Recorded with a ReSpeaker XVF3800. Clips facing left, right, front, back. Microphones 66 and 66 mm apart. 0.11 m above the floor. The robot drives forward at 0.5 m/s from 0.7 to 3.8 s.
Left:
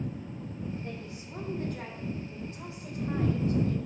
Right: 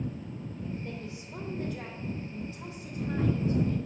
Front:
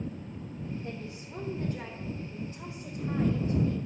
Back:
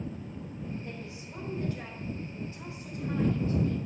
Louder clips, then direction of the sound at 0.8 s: Right 1 dB, front 2 dB; 45° left.